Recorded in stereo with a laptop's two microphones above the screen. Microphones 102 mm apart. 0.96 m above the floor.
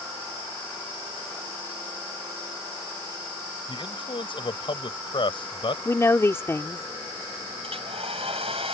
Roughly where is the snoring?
No snoring in this recording.